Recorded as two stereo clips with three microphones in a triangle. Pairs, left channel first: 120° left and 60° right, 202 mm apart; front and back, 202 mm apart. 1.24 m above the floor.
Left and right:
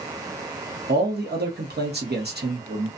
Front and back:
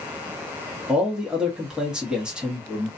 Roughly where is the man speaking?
Right.